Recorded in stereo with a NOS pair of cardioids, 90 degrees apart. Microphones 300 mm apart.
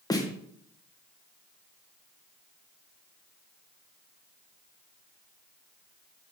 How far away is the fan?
I don't hear a fan.